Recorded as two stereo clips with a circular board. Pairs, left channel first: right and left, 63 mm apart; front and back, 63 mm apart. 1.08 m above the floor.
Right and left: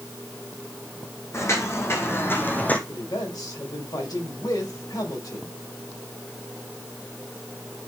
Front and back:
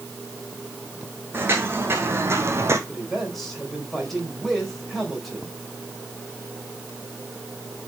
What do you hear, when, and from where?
1.3 s footsteps: 130° right, 3 m; by 2.8 s 150° right, 1.8 m
2.9 s a man speaking: 85° right, 4 m